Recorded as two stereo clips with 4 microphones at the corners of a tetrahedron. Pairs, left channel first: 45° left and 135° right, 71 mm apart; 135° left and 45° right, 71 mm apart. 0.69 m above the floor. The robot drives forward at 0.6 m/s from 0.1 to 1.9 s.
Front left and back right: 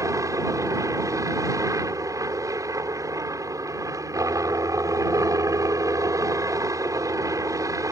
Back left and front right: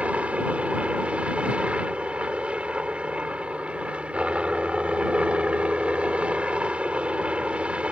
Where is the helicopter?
115° right.